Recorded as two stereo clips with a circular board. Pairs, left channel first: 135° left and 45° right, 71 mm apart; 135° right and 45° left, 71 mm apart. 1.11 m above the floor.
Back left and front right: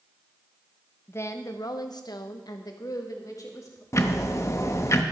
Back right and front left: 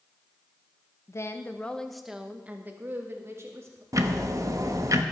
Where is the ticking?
85° left, 1.0 m.